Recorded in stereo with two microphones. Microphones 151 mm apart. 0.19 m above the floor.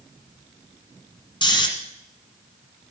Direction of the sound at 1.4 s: 30° left (ahead or behind).